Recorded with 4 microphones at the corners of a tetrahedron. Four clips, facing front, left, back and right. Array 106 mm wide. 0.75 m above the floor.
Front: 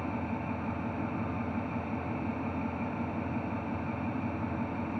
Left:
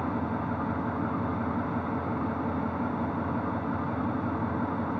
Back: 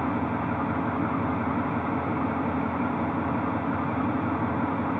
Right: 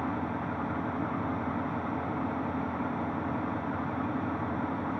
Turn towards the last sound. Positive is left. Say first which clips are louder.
# left 2 dB, back 8 dB
turn(degrees=175)